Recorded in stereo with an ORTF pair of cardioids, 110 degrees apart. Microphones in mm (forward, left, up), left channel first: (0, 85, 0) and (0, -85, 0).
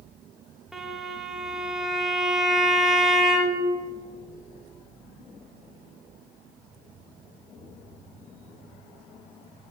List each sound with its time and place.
0.7 s a violin: 5° right, 2 m